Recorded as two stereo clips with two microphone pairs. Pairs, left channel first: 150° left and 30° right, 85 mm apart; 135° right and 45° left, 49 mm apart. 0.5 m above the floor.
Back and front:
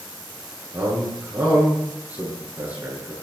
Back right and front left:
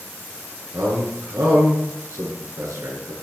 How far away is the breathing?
I don't hear breathing.